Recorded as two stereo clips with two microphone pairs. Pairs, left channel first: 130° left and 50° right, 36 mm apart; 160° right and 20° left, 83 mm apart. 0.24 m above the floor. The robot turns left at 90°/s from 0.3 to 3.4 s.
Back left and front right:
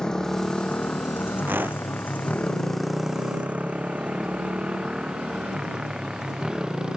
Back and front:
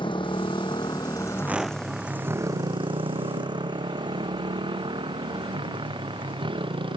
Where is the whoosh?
45° right; by 1.9 s 85° right.